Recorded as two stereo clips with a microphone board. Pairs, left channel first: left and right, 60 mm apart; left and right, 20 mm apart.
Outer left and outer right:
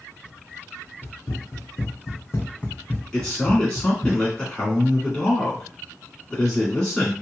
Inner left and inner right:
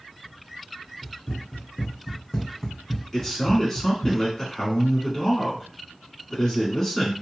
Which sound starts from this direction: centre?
A man speaking, at 3.1 s.